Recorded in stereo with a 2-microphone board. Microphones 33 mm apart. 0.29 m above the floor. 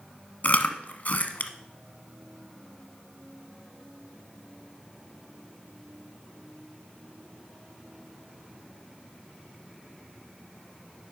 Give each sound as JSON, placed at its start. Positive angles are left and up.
{"t": 0.4, "sound": "chewing", "side_deg": 60, "distance_m": 0.9}